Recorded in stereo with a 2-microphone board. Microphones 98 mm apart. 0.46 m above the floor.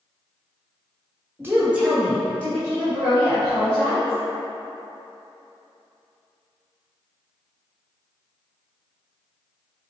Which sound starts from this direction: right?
A woman speaking, at 1.4 s.